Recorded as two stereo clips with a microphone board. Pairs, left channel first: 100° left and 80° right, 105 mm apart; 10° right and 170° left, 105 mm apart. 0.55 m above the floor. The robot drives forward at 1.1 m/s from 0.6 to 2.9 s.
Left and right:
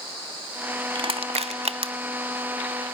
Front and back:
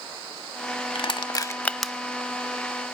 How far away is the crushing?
About 1.1 m.